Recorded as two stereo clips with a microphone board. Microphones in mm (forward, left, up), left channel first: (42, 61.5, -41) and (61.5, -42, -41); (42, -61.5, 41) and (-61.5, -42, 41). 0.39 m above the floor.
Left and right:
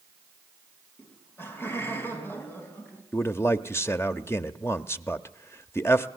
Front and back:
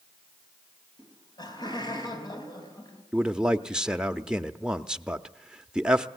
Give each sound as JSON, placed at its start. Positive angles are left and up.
{"t": 1.0, "sound": "laughter", "azimuth_deg": 35, "distance_m": 3.5}
{"t": 3.1, "sound": "a man speaking", "azimuth_deg": 95, "distance_m": 0.8}